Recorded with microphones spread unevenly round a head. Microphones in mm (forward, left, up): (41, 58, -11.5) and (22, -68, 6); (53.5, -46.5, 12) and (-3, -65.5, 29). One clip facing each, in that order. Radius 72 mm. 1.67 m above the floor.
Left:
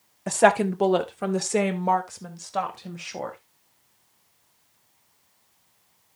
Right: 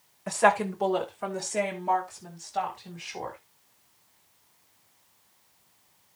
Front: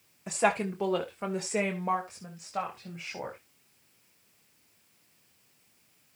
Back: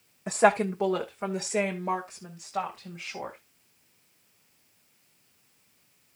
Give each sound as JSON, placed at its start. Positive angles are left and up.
{"t": 0.3, "sound": "a woman speaking", "azimuth_deg": 135, "distance_m": 1.0}